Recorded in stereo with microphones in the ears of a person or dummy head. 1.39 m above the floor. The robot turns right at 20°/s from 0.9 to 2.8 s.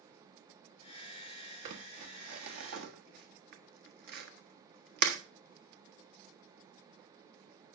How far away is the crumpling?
About 1.3 m.